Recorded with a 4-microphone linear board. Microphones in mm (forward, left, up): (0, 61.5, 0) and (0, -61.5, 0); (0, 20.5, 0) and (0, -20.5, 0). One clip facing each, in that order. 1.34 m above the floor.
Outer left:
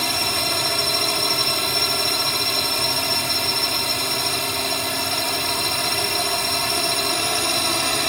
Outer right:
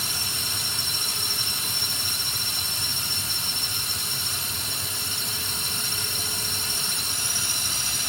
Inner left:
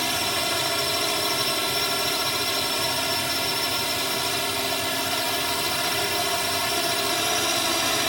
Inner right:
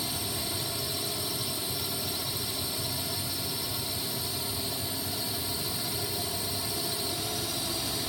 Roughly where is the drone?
Left.